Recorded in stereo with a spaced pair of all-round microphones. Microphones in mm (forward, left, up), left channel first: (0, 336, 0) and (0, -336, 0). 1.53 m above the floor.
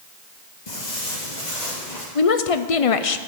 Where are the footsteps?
50° left (ahead or behind), 2.5 m; by 2.0 s 65° left (ahead or behind), 3.5 m.